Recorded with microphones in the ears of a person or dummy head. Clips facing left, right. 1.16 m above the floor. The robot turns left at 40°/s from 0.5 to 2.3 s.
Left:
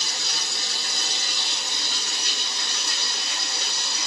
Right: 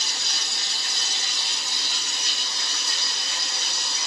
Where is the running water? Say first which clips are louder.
Left 2 dB; 95° left, 3.5 m; by 4.1 s 25° left, 3.5 m.